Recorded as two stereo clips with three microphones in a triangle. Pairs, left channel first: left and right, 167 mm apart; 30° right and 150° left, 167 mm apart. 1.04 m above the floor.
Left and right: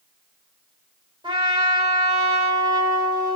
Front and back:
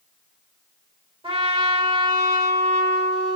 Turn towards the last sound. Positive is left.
turn(degrees=-155)